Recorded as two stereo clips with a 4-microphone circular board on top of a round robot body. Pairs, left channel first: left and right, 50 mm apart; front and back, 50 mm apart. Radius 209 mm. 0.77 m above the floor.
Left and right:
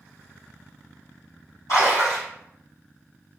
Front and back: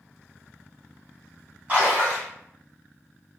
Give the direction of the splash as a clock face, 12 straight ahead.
8 o'clock.